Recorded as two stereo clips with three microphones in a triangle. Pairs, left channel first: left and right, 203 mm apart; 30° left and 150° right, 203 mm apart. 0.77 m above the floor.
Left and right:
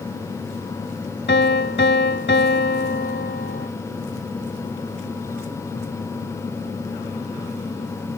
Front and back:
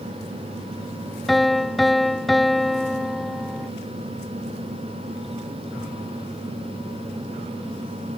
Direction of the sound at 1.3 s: 120° left.